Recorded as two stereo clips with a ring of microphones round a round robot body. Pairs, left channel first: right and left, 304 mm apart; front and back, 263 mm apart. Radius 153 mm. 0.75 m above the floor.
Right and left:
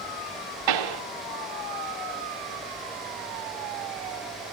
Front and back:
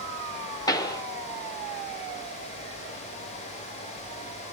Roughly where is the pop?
Left.